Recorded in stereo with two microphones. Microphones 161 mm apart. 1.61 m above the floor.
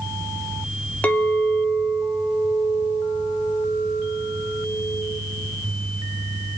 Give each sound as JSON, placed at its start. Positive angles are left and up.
{"t": 1.0, "sound": "a clink", "side_deg": 10, "distance_m": 1.7}